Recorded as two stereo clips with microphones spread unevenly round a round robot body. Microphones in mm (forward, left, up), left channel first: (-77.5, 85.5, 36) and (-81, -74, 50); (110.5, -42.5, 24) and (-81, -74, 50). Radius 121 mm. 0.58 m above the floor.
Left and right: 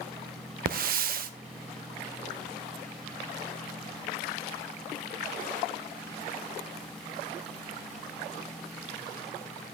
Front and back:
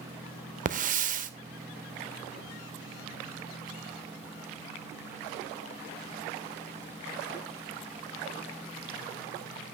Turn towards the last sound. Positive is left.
turn(degrees=-120)